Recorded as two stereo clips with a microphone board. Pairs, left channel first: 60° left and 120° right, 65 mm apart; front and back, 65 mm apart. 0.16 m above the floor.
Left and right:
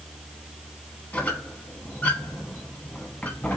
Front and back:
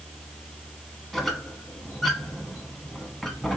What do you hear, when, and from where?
1.1 s a squeak: 85° left, 0.8 m